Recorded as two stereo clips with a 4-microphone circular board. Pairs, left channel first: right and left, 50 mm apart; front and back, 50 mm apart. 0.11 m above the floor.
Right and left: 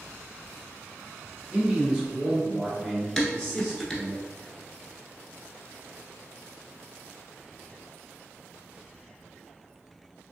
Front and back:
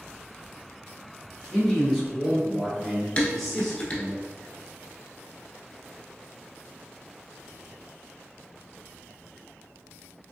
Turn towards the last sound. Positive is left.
turn(degrees=-20)